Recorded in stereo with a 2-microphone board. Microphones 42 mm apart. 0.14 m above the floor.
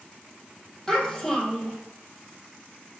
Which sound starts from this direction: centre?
A child speaking, at 0.9 s.